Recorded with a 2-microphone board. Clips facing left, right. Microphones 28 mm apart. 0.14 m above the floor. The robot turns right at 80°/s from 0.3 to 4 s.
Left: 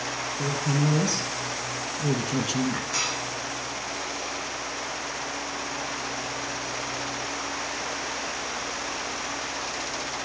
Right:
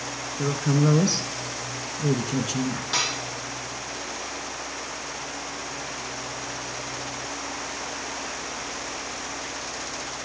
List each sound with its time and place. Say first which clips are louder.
0.4 s a woman speaking: right 4 dB; 150° right, 1.3 m; by 2.8 s 45° left, 1.3 m
2.9 s dishes clattering: right 2 dB; 60° right (ahead or behind), 3 m; by 3.2 s 40° right (ahead or behind), 3 m